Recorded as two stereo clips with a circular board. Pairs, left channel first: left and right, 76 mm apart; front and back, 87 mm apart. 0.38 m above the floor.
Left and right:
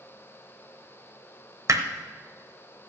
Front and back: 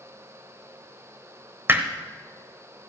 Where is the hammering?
120° right, 0.9 m.